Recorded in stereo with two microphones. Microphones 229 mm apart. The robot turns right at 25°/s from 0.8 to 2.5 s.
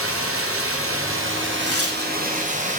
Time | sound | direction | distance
0.0 | running water | 75° right | 1.6 m
1.6 | tearing paper | 80° left | 1.3 m